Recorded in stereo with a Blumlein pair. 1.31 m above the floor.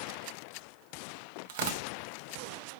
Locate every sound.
1.5 s tearing paper: 55° right, 0.6 m